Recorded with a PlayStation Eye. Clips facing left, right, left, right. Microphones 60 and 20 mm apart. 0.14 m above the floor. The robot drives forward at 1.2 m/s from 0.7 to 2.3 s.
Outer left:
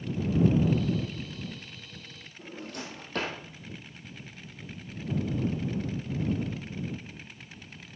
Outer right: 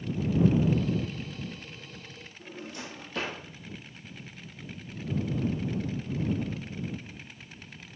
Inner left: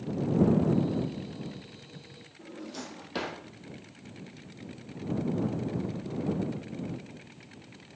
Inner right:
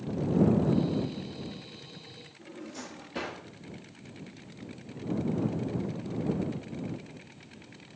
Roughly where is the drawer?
Left.